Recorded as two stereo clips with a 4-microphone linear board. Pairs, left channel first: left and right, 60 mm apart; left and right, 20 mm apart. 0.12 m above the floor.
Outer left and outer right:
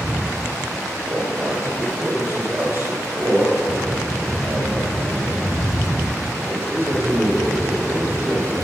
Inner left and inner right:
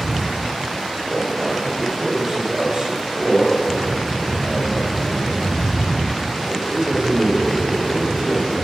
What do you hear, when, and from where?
1.1 s a man speaking: 25° right (ahead or behind), 2 m